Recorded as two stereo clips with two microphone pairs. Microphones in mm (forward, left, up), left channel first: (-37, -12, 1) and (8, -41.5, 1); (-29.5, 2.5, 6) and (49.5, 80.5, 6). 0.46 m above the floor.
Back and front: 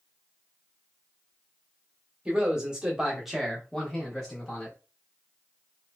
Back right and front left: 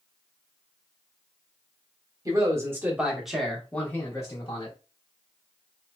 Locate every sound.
2.2 s a man speaking: 20° left, 1.1 m; by 4.8 s 155° right, 1.1 m